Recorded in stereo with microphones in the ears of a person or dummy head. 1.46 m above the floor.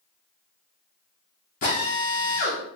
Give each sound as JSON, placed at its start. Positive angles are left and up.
{"t": 1.6, "sound": "a drill", "side_deg": 30, "distance_m": 0.6}